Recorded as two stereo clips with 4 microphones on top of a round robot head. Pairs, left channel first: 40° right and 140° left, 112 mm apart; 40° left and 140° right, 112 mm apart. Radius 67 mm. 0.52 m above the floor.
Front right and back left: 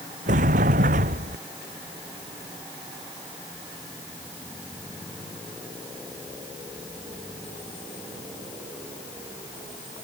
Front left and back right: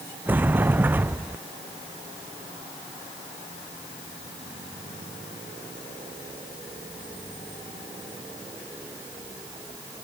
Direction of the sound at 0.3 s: 145° left.